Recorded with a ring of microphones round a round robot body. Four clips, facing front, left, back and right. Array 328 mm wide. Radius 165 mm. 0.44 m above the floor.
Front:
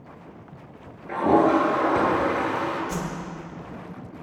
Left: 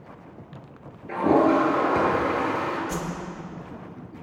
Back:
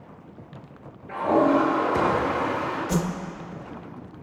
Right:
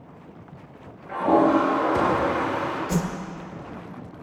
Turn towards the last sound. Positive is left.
turn(degrees=-145)